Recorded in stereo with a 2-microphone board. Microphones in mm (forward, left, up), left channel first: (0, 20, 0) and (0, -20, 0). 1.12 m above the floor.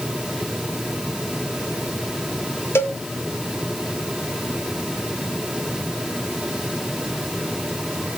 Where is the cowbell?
75° left (ahead or behind), 1.3 m.